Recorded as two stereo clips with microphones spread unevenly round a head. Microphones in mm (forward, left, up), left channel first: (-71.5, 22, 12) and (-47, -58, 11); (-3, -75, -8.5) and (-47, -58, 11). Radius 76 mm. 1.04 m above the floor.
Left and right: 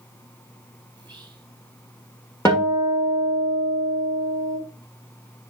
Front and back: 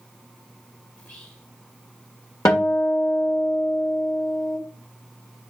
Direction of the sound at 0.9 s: 30° left.